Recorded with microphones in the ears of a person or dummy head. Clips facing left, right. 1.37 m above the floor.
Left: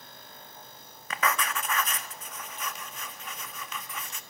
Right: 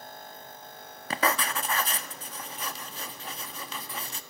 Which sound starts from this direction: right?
Writing, at 1.1 s.